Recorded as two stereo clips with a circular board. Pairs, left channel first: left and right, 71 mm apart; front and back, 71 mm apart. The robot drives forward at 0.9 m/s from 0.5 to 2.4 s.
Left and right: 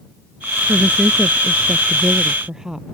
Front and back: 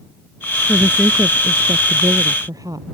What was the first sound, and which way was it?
A woman speaking, 130° right.